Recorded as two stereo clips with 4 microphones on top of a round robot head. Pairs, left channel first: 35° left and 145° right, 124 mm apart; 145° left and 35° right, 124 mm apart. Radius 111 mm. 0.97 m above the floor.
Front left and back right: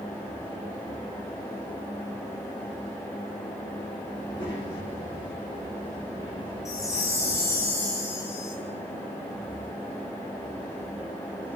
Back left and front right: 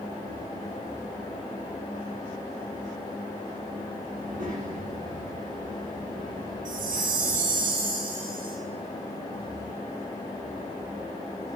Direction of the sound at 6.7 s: 35° right.